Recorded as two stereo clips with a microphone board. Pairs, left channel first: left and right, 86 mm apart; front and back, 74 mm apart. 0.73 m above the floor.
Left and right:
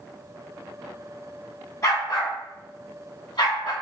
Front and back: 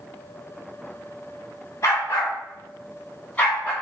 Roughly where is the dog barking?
Ahead left.